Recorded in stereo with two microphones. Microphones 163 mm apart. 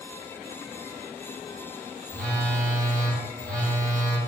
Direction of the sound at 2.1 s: 5° left (ahead or behind).